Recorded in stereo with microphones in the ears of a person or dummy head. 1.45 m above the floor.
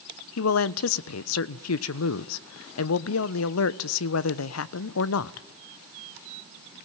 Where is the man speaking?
75° left (ahead or behind), 0.9 m.